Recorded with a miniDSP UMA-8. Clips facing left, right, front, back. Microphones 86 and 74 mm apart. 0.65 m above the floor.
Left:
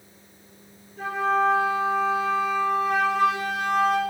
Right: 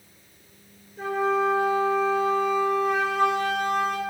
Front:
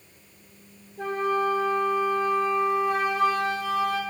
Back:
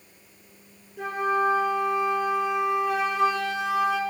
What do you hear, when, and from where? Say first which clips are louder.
1.0 s a flute: left 1 dB, back 1 dB; 175° left, 2.0 m